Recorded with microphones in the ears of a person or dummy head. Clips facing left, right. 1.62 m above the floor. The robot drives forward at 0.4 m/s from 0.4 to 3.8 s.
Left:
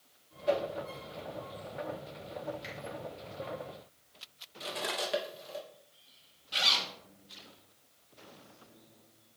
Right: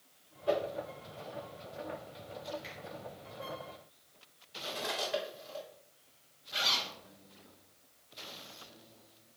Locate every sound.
0.5 s a whoosh: 30° left (ahead or behind), 1.9 m
2.6 s a finger snap: 30° left (ahead or behind), 3 m
4.6 s cutlery clinking: 55° left (ahead or behind), 1.0 m
6.5 s a zipper: 45° left (ahead or behind), 1.0 m